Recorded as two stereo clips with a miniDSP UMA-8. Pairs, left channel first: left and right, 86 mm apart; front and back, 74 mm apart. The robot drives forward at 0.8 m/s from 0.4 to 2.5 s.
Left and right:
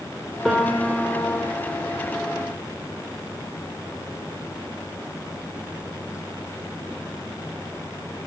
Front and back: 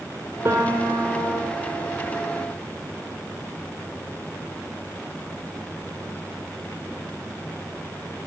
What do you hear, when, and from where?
0.5 s a piano: 175° right, 1.6 m